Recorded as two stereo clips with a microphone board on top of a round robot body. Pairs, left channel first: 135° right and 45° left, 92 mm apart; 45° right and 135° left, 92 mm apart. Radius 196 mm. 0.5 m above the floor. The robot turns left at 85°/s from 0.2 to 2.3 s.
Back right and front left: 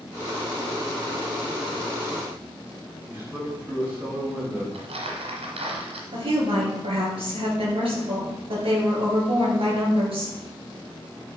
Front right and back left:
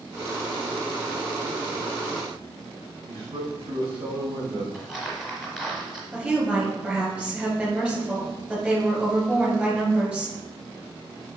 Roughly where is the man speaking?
Behind left.